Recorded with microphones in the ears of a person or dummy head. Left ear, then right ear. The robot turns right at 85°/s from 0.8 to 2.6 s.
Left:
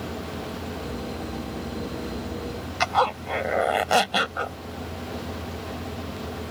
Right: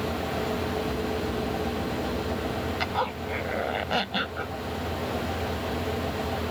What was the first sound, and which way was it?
A zipper, 40° left (ahead or behind).